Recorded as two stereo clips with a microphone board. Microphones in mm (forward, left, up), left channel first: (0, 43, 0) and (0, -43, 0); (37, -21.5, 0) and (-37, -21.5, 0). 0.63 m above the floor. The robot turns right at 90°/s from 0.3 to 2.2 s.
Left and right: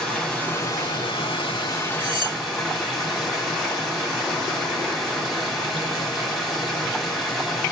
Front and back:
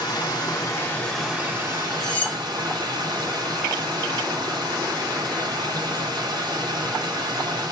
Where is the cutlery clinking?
85° right, 1.0 m; by 2.4 s 70° right, 1.0 m.